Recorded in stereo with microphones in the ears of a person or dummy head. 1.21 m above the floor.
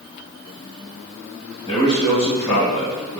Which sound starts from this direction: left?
A man speaking, at 1.7 s.